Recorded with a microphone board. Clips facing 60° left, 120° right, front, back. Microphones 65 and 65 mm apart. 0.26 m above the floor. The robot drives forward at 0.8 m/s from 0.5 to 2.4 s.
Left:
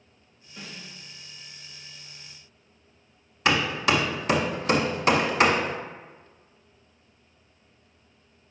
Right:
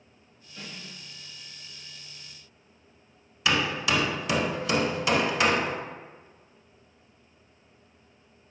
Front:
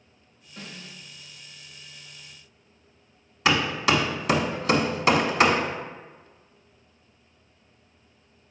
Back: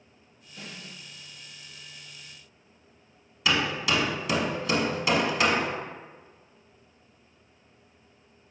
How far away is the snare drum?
About 1.7 m.